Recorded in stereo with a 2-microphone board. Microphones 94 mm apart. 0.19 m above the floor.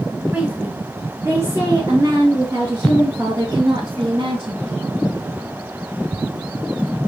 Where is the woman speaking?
15° right (ahead or behind), 2.5 m; by 4.8 s 70° right (ahead or behind), 3.5 m.